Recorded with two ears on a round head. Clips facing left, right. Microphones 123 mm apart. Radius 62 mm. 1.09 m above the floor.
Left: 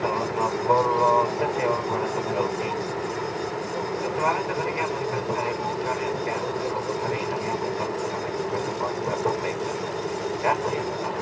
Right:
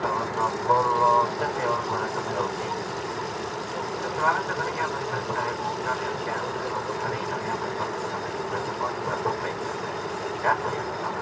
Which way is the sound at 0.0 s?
20° left (ahead or behind).